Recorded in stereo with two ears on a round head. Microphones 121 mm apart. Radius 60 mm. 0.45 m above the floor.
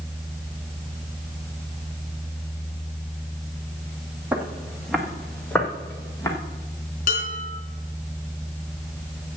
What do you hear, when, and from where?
4.3 s footsteps: 10° right (ahead or behind), 1.7 m; by 6.3 s 20° left (ahead or behind), 2.5 m
7.1 s dishes clattering: 65° left (ahead or behind), 4 m